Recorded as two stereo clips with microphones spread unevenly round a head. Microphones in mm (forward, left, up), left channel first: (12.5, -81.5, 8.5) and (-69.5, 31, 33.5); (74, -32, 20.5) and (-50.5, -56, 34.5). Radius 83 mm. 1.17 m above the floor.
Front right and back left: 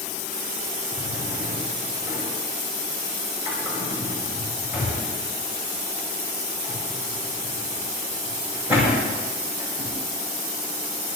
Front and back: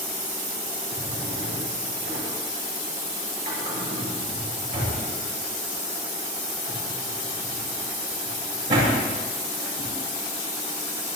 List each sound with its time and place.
0.9 s a drawer: 155° right, 9 m